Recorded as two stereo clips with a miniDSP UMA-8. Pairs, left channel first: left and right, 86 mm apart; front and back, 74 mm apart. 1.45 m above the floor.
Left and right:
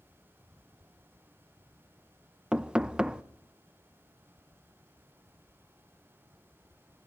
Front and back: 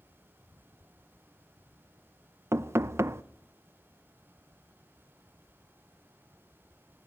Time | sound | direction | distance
2.5 | knocking | 165° right | 0.6 m